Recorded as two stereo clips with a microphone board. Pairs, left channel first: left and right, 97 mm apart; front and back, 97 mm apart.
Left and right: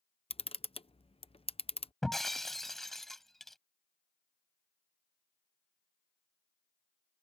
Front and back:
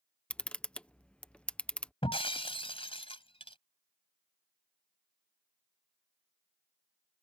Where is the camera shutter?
80° left.